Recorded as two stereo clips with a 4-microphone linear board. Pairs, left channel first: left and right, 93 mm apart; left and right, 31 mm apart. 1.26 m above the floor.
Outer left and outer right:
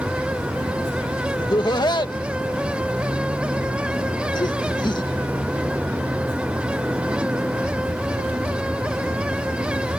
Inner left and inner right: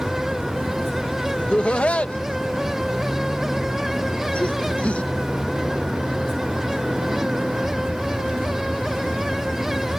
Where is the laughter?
50° left (ahead or behind).